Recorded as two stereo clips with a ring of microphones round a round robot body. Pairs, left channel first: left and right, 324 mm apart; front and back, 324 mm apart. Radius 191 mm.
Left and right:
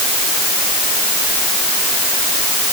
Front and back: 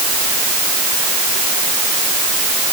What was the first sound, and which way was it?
Only background noise.